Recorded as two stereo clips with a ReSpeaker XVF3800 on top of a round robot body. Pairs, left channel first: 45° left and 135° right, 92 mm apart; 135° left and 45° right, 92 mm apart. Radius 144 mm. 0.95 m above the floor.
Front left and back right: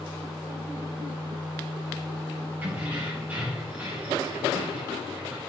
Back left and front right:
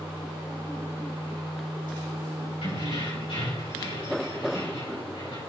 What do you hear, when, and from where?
2.6 s keys jangling: 155° left, 4.5 m